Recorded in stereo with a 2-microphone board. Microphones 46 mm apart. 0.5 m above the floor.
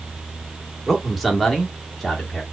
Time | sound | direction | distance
0.9 | a man speaking | 5° right (ahead or behind) | 1.4 m